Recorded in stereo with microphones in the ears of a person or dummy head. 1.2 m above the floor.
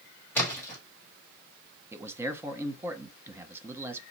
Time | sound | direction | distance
0.3 | a splash | 5° left (ahead or behind) | 1.9 m
1.9 | a man speaking | 5° right (ahead or behind) | 0.8 m